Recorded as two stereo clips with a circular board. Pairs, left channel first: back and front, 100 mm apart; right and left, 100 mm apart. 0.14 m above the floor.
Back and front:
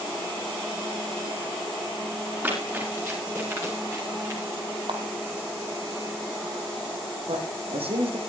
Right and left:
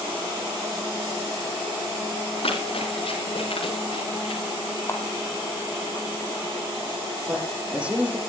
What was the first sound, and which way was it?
Running footsteps, 70° right.